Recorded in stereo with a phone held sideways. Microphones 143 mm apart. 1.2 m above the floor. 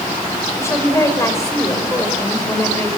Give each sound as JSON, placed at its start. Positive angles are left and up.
{"t": 0.6, "sound": "a woman speaking", "side_deg": 20, "distance_m": 4.5}